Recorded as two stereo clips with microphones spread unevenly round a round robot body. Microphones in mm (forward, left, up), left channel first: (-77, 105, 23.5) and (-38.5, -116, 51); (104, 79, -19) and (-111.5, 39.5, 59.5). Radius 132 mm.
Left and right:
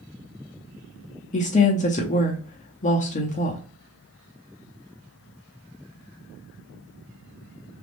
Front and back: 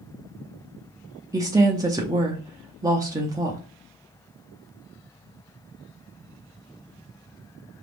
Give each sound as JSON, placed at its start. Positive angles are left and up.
{"t": 1.3, "sound": "a woman speaking", "azimuth_deg": 95, "distance_m": 0.7}